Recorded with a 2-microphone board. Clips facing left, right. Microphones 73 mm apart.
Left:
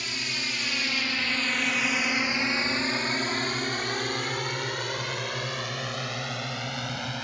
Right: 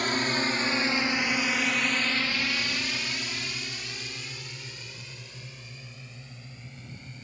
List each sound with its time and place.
0.0 s a drone: 45° right (ahead or behind); by 7.2 s 75° left (ahead or behind)